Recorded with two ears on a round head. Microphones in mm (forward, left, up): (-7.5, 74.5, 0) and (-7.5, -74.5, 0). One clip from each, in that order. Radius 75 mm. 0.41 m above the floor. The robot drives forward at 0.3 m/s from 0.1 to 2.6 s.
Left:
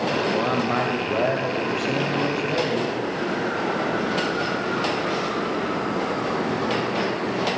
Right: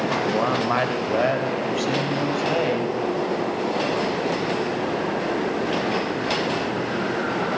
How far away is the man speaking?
About 1.2 m.